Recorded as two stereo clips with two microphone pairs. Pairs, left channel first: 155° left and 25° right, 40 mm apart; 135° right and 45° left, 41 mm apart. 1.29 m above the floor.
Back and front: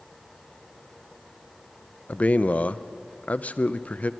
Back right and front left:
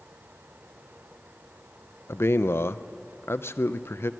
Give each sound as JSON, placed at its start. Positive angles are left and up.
{"t": 2.1, "sound": "a man speaking", "azimuth_deg": -150, "distance_m": 0.6}